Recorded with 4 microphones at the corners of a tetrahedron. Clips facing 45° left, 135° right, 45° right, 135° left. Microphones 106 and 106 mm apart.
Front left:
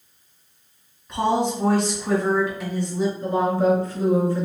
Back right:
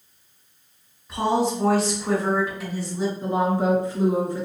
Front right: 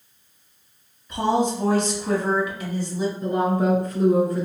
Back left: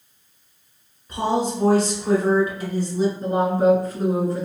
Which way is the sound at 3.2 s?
165° left.